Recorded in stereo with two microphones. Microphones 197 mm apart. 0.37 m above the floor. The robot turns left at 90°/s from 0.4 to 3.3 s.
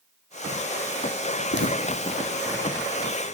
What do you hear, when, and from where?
1.5 s footsteps: 65° left (ahead or behind), 0.9 m; by 3.4 s 75° right (ahead or behind), 2.5 m